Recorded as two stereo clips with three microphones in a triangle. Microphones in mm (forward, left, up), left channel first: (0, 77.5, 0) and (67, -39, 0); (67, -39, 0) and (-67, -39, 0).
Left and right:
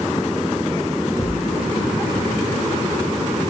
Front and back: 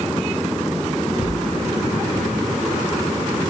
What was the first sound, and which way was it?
A cupboard door, 10° left.